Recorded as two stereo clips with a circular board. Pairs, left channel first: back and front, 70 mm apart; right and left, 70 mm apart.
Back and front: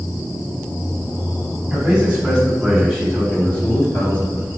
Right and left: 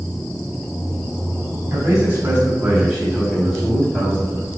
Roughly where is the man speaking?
Left.